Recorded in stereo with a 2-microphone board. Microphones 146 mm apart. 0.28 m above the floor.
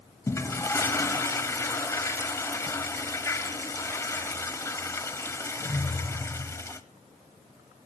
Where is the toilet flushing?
20° left (ahead or behind), 1.1 m.